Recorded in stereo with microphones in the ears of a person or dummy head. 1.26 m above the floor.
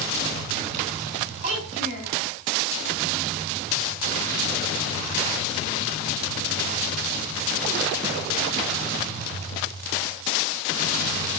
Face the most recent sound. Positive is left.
turn(degrees=-35)  # may be behind; listen again after turning